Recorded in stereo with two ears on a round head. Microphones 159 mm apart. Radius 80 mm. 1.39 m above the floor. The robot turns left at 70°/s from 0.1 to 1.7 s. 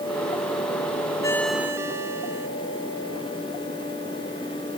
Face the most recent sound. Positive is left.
turn(degrees=-15)